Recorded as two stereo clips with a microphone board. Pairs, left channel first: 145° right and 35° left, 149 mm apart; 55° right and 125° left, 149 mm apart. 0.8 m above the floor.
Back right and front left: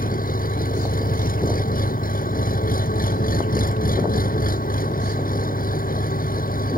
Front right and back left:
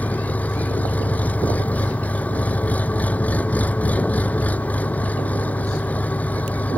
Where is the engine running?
135° right.